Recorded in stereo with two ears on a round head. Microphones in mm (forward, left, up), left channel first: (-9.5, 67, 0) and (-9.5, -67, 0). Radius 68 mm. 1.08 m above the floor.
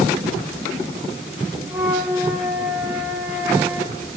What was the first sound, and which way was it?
A flute, 15° right (ahead or behind).